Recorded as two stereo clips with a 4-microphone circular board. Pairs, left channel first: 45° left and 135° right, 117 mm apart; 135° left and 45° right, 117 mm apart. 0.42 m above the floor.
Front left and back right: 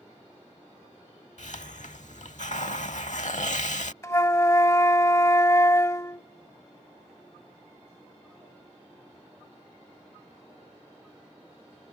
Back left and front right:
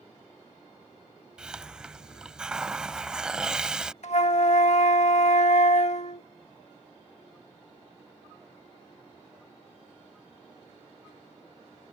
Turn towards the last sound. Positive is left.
turn(degrees=110)